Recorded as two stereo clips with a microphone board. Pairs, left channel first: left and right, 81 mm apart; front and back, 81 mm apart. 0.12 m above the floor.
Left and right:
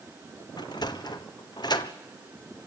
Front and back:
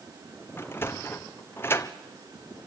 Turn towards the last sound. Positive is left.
turn(degrees=60)